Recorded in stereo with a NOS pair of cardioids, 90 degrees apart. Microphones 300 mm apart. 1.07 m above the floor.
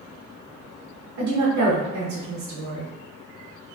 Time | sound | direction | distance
1.2 | a woman speaking | 65° right | 0.9 m